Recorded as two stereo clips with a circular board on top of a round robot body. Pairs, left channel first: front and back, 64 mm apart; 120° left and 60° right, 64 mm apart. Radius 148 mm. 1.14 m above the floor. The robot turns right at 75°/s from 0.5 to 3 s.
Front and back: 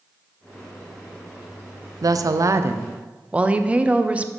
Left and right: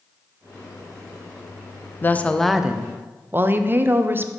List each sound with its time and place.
2.0 s a woman speaking: 175° left, 0.6 m; by 4.3 s 110° right, 0.6 m